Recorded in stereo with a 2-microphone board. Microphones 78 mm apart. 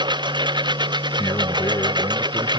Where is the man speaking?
50° left (ahead or behind).